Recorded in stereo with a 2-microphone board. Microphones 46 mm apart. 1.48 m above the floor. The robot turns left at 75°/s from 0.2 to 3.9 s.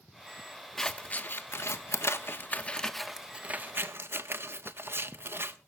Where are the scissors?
5° left (ahead or behind), 1.1 m; by 5.6 s 55° right (ahead or behind), 1.1 m.